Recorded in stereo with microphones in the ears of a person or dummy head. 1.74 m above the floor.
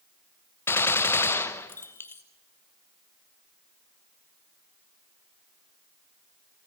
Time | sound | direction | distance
0.7 | a gunshot | 15° left (ahead or behind) | 1.1 m